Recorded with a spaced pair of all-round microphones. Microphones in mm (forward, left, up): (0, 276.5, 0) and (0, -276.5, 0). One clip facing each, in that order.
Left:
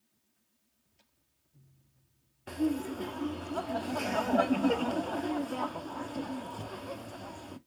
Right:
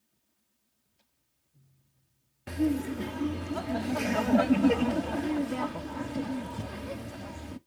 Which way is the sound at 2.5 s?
45° right (ahead or behind).